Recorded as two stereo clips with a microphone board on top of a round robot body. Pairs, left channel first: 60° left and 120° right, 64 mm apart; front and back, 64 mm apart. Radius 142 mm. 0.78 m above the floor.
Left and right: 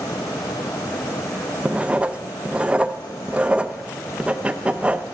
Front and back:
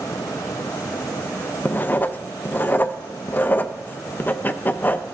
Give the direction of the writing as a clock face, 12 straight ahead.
2 o'clock.